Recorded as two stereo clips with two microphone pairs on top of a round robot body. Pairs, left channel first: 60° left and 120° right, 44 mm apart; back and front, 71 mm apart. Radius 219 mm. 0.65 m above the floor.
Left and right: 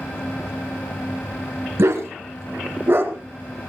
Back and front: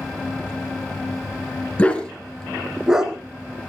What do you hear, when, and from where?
1.8 s a dog barking: 110° right, 2.5 m; by 3.7 s 65° right, 2.5 m